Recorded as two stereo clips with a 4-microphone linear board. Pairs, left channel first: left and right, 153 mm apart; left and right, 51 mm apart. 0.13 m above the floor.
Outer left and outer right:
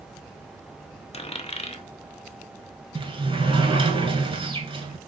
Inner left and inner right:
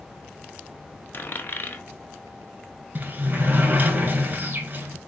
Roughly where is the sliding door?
Right.